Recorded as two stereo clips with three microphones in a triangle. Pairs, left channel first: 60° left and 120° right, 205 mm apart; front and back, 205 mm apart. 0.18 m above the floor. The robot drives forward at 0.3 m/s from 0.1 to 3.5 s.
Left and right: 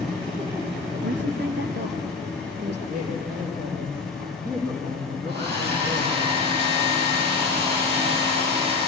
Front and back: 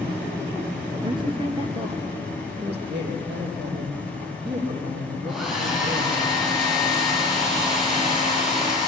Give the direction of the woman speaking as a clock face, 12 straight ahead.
4 o'clock.